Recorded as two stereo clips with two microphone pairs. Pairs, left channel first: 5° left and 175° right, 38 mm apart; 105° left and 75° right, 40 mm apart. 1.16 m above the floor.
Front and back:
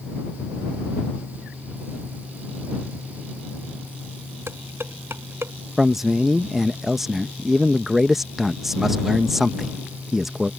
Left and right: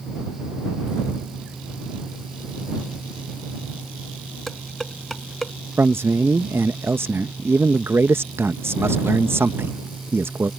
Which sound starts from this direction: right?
A man speaking, at 5.8 s.